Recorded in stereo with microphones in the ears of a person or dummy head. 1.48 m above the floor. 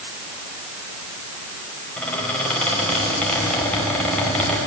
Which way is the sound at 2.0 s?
10° left (ahead or behind).